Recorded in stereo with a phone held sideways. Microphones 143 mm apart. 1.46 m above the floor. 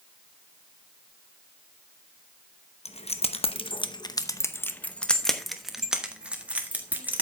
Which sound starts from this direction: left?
Keys jangling, at 2.9 s.